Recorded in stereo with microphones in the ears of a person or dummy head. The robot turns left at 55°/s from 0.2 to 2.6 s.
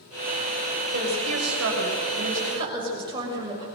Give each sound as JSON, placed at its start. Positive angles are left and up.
{"t": 0.9, "sound": "a woman speaking", "azimuth_deg": -65, "distance_m": 7.5}